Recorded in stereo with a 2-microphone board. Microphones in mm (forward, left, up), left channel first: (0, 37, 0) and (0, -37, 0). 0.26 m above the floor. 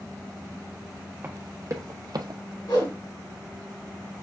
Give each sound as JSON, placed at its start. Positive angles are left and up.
{"t": 1.2, "sound": "running footsteps", "side_deg": -30, "distance_m": 1.3}
{"t": 2.7, "sound": "a whoosh", "side_deg": 65, "distance_m": 1.4}